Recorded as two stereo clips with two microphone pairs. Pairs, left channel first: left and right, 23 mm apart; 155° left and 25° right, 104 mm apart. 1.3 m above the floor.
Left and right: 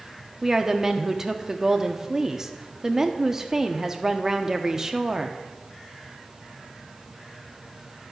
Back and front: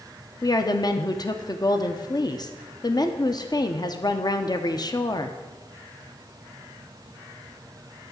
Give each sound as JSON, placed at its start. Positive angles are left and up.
{"t": 0.4, "sound": "a woman speaking", "azimuth_deg": -155, "distance_m": 1.0}